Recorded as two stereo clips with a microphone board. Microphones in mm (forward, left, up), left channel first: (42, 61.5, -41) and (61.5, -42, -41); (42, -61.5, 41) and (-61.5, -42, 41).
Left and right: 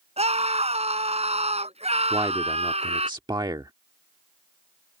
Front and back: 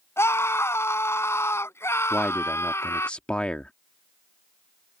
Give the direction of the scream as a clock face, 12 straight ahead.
3 o'clock.